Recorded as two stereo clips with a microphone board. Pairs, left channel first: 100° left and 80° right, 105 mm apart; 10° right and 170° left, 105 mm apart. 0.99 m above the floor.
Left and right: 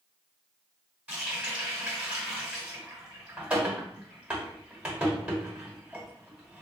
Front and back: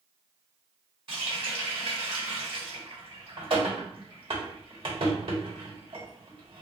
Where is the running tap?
155° right, 1.1 m.